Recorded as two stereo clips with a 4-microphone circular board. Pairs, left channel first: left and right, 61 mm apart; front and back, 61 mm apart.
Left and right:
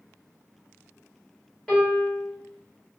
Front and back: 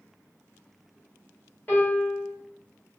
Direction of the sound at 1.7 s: 15° left.